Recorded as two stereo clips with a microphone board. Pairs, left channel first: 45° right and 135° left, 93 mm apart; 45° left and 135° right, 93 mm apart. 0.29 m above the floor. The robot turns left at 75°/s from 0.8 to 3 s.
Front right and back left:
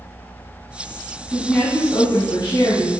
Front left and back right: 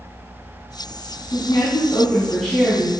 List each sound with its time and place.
1.3 s a woman speaking: 35° left, 2.5 m; by 2.9 s 80° right, 2.5 m